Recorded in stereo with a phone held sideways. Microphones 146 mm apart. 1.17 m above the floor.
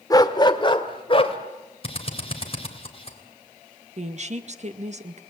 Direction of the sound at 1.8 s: 40° left (ahead or behind).